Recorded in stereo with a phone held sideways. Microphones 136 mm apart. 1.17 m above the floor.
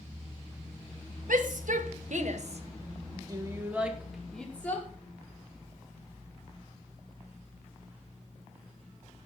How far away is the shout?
About 1.7 m.